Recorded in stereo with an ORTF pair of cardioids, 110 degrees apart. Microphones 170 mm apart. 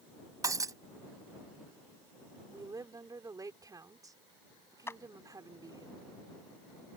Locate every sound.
0.4 s breaking glass: 20° right
2.5 s a woman speaking: 20° right
4.9 s a clap: 15° left